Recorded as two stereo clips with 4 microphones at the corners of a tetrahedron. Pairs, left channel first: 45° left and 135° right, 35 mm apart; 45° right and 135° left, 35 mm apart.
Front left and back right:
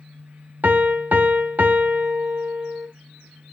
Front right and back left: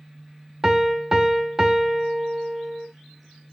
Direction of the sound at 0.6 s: 155° right.